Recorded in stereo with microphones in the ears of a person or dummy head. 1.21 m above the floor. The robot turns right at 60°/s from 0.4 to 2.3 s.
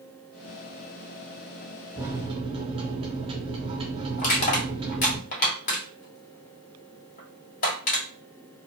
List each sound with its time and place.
2.0 s a microwave: 10° right (ahead or behind), 0.6 m; by 5.2 s 30° right (ahead or behind), 0.6 m
4.2 s crushing: 45° left (ahead or behind), 1.1 m